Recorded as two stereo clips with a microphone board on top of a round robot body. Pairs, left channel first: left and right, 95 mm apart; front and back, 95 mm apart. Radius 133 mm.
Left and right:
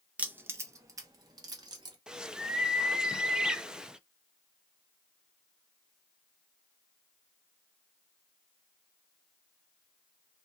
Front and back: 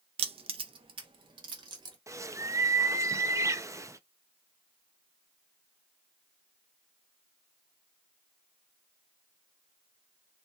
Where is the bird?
165° right, 0.7 m.